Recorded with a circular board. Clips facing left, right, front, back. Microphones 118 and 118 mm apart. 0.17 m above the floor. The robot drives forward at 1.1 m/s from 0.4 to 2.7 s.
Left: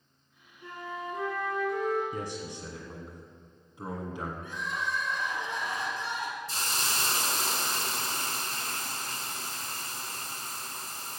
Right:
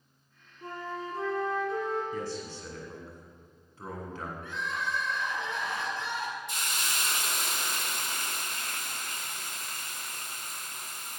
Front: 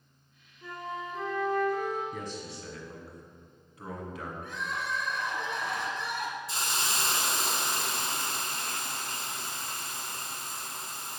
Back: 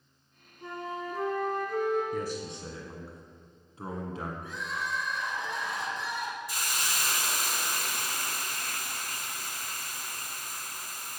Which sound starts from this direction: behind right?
A flute, at 0.6 s.